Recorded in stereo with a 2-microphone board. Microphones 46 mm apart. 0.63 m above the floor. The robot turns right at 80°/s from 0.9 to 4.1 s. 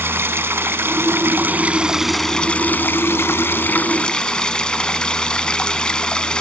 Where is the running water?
100° right, 0.9 m; by 6.4 s 155° left, 0.9 m.